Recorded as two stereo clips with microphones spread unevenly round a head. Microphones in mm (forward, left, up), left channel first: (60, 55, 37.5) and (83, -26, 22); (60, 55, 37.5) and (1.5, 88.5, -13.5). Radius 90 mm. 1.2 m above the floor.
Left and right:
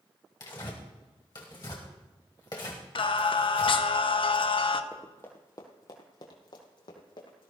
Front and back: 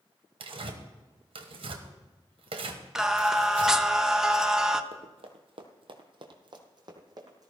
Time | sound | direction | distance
0.4 | tearing paper | 150° left | 1.5 m
3.0 | singing | 85° left | 0.8 m
4.9 | running footsteps | 170° left | 1.6 m